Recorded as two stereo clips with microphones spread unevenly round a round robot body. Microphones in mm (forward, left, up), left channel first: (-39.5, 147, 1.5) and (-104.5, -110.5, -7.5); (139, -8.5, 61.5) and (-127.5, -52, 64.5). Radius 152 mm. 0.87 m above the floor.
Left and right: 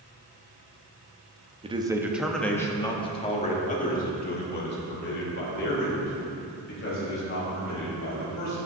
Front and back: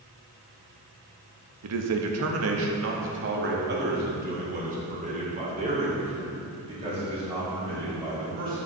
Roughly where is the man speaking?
Behind.